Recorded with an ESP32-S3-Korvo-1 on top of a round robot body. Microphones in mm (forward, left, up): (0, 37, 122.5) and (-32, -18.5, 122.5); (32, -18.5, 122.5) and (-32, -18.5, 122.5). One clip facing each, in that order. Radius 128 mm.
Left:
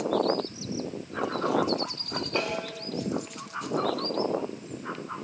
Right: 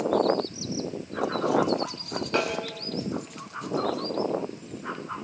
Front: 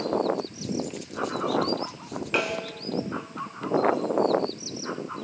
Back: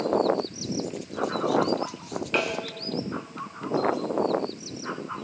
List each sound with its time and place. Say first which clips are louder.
2.3 s a snare drum: right 3 dB, even; 85° right, 2.5 m